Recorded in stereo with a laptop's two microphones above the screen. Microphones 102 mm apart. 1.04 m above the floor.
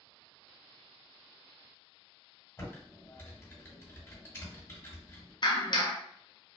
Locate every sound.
2.6 s typing on a keyboard: 25° left (ahead or behind), 1.8 m
5.4 s a clap: 50° left (ahead or behind), 0.6 m